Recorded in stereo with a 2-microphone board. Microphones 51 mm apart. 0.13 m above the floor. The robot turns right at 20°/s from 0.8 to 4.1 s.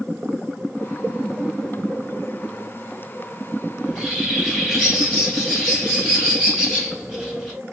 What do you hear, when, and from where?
3.8 s a bird: 5° left (ahead or behind), 3 m; by 7.5 s 10° left (ahead or behind), 3 m